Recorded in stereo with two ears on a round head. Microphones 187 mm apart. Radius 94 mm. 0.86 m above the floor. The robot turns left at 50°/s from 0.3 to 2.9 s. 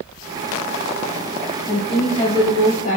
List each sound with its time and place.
1.7 s a woman speaking: straight behind, 1.1 m; by 3.0 s 120° left, 1.1 m